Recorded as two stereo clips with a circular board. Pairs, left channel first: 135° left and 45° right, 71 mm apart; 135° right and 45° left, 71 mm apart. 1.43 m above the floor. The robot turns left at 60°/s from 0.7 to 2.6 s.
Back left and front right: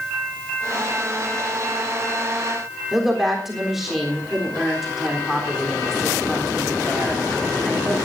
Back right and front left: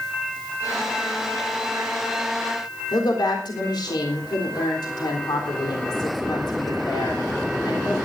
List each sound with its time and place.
2.9 s a woman speaking: 135° right, 3.5 m